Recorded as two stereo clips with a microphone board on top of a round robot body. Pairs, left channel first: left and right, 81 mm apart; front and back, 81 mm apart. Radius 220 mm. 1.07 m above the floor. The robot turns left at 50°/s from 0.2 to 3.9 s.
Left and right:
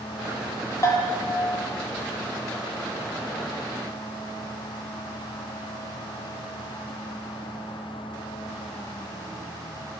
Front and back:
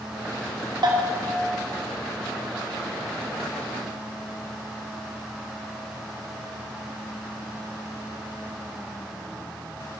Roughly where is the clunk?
No clunk in this recording.